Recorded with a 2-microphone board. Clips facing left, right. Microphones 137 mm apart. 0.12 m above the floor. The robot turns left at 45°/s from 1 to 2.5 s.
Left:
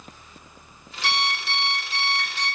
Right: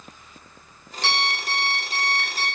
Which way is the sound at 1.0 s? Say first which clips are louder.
Right 1 dB; 110° right.